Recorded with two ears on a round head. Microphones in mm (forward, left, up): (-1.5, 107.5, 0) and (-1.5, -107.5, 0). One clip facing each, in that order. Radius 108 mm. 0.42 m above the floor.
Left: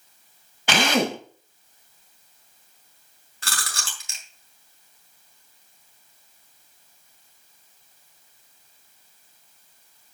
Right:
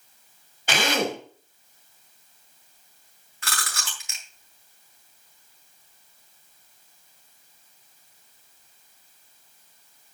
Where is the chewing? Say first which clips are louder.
Right 1 dB; 30° left (ahead or behind), 3 m.